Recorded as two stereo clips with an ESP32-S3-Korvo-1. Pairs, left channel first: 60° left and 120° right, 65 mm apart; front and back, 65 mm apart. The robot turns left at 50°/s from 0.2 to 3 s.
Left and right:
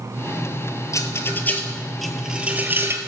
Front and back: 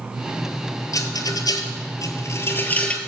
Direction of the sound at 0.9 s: 25° left.